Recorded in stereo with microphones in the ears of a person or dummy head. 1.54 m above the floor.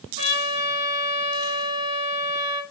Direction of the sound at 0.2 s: 40° right (ahead or behind).